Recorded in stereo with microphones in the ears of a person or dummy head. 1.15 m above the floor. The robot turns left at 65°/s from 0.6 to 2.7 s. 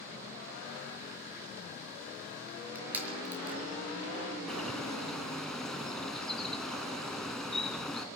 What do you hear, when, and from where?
2.5 s crushing: 5° left (ahead or behind), 5.5 m; by 3.6 s 10° right (ahead or behind), 5.5 m
4.5 s a bird: 5° left (ahead or behind), 3 m